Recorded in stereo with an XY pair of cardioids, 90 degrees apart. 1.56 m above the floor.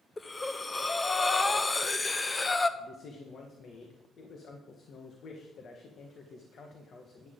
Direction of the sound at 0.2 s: 25° left.